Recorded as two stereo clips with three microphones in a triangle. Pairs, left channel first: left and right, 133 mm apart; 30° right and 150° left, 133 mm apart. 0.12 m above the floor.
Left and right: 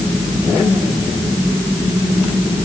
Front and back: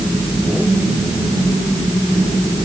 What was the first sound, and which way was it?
Only background noise.